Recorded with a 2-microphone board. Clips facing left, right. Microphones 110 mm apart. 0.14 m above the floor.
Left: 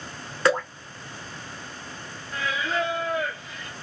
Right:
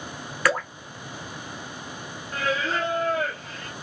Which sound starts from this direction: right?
Singing, at 2.3 s.